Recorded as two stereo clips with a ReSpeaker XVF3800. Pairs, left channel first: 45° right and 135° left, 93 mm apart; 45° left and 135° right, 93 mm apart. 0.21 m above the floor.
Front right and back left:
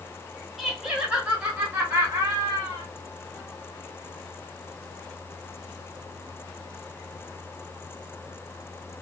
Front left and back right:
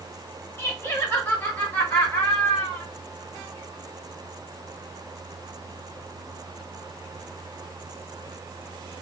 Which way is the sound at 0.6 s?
45° left.